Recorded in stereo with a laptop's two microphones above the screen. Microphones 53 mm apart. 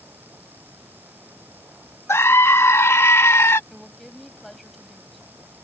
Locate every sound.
0.0 s a fan: 35° right (ahead or behind)
2.1 s a scream: 55° left (ahead or behind)
3.7 s a woman speaking: centre (ahead or behind)